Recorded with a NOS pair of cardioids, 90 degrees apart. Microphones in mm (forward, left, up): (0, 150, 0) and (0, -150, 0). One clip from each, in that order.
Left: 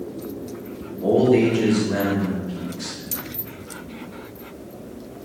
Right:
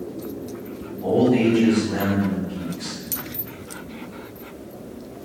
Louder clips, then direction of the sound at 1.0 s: Left 2 dB; 60° left.